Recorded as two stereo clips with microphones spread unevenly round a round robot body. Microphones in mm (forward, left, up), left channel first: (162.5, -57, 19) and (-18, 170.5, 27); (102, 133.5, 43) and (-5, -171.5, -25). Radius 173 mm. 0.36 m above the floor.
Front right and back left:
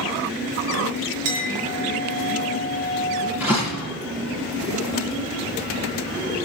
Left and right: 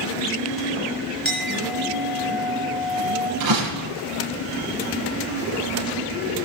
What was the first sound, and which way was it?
A clink, 160° left.